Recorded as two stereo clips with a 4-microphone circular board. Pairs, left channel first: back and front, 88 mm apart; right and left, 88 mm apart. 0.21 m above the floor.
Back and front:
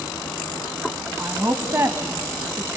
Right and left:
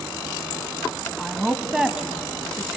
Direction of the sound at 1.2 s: 15° left.